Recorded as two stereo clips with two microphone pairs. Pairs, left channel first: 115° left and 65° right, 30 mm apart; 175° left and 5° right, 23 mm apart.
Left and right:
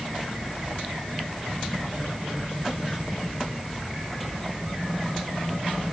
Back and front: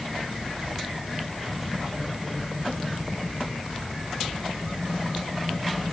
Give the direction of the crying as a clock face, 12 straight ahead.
I don't hear crying.